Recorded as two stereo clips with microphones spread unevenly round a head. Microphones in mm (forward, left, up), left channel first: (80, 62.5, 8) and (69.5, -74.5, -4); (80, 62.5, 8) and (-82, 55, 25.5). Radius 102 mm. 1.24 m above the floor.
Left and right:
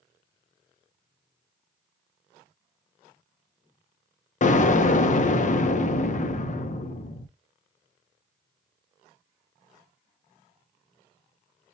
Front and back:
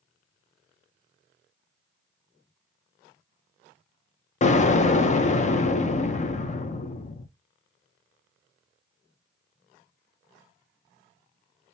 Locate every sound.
4.4 s an explosion: 50° left, 0.7 m